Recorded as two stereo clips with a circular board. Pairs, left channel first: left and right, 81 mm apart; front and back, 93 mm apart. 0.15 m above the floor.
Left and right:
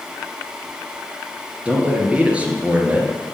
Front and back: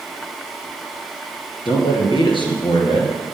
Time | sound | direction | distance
1.6 | a man speaking | 15° right | 2.5 m